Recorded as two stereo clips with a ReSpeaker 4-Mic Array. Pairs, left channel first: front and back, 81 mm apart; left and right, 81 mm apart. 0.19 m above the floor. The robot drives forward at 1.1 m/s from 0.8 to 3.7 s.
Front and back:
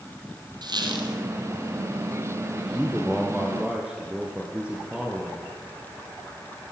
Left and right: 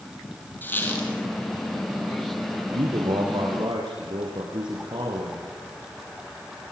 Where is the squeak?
155° left, 3.5 m; by 1.1 s 160° left, 3.5 m.